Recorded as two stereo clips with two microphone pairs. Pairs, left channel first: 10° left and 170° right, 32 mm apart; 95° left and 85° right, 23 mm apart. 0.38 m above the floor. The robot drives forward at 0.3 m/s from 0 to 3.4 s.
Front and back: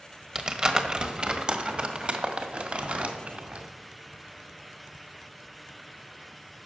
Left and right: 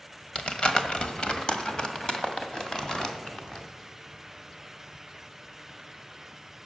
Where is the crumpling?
130° left, 1.3 m; by 3.7 s 150° left, 2.0 m.